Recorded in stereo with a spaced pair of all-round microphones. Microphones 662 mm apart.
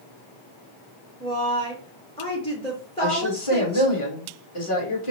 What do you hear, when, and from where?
1.2 s a woman speaking: 10° left (ahead or behind), 0.9 m
3.0 s a woman speaking: 50° left (ahead or behind), 2 m